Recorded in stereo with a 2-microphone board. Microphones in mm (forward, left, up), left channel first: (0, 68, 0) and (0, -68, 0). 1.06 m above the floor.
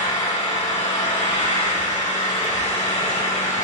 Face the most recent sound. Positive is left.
turn(degrees=55)  # may be behind; listen again after turning